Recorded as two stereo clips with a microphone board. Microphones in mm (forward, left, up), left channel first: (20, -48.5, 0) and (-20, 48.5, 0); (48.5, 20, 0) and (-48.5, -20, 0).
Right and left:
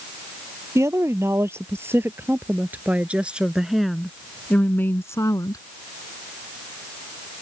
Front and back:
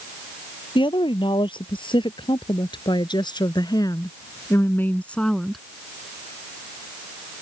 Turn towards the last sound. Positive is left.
turn(degrees=-70)